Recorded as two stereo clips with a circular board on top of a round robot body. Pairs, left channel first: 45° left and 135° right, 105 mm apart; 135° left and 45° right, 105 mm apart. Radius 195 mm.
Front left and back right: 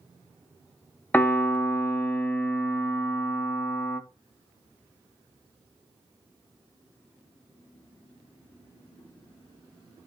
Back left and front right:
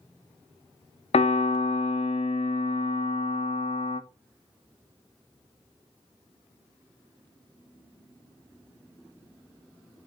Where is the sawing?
No sawing in this recording.